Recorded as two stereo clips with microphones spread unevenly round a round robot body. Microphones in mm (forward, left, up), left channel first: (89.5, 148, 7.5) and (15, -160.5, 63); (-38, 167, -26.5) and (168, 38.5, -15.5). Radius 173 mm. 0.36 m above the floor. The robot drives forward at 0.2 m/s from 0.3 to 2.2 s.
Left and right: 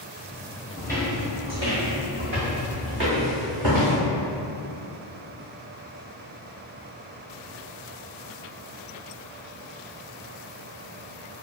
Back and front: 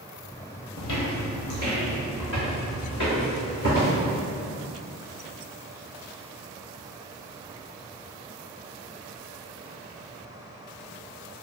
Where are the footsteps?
155° left, 0.6 m; by 4.0 s 150° right, 2 m.